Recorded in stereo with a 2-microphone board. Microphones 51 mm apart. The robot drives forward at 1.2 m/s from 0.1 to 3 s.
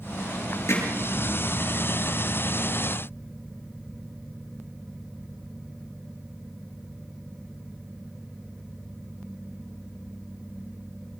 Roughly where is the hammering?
Left.